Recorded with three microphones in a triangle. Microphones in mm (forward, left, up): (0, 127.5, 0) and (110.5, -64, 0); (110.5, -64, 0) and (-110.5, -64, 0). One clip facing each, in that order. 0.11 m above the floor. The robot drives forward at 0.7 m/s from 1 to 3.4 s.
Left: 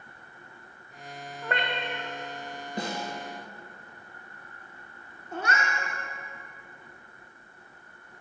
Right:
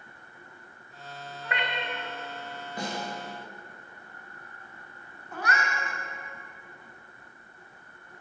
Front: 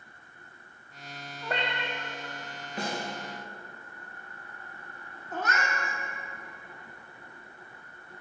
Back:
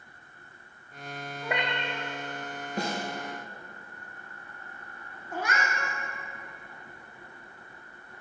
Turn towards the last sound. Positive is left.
turn(degrees=115)